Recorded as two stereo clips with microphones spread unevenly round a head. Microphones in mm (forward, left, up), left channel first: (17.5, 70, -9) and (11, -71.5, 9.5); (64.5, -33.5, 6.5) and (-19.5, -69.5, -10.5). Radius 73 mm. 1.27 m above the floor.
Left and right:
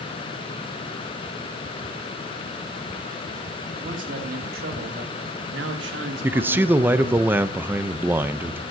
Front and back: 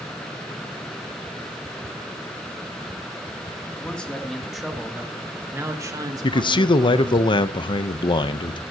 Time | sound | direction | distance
3.8 | a man speaking | 55° right | 3 m
6.2 | a man speaking | 15° right | 1.0 m